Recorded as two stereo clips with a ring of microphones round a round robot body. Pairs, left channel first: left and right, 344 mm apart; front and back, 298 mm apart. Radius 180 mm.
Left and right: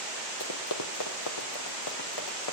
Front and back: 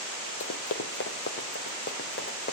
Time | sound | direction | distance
0.4 | running footsteps | 45° left | 1.3 m